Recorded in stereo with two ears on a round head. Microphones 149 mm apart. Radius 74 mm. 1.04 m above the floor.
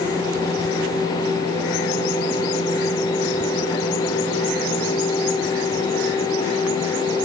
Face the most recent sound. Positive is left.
No sound to turn to.